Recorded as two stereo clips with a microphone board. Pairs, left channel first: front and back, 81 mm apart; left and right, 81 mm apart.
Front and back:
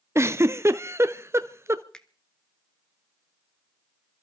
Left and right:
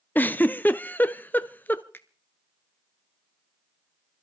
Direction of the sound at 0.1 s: 145° left.